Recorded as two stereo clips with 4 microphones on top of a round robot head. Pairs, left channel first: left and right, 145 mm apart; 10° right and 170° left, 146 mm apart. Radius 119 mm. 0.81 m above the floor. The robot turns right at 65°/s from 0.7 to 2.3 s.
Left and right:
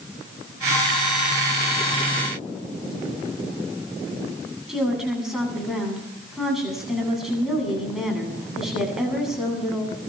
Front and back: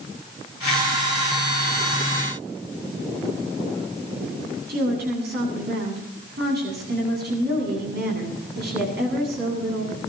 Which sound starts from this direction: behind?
A woman speaking, at 4.7 s.